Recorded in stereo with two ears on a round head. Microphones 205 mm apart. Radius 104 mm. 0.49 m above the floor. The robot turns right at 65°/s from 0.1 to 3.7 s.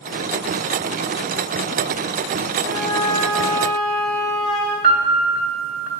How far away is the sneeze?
I don't hear a sneeze.